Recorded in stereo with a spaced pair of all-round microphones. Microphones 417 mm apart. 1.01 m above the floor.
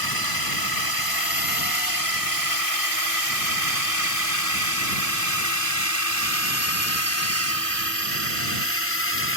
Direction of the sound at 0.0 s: 60° left (ahead or behind).